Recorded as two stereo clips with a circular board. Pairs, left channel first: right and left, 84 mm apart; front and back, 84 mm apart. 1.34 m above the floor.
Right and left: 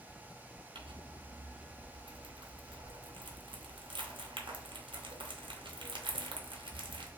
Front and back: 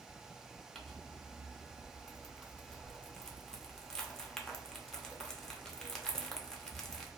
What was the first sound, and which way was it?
Crumpling, 85° left.